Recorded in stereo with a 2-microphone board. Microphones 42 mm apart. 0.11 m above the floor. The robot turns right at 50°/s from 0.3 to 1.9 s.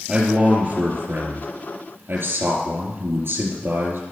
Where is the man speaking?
150° right, 4 m; by 4.0 s 70° right, 4 m.